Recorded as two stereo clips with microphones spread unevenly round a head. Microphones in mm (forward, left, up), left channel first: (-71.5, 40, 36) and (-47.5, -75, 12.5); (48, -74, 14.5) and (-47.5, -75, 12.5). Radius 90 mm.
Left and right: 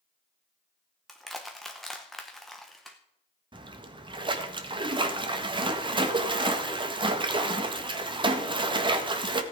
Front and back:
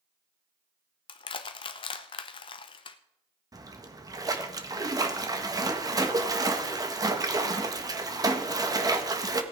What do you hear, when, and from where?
1.1 s crushing: 20° left, 0.7 m
3.5 s a splash: 130° right, 1.5 m